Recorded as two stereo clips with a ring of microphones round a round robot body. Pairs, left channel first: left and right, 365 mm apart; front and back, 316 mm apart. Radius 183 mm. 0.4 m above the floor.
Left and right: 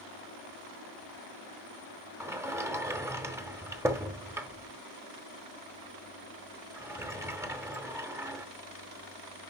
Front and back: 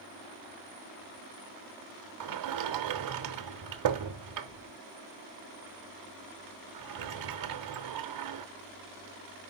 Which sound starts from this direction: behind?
A sliding door, at 2.2 s.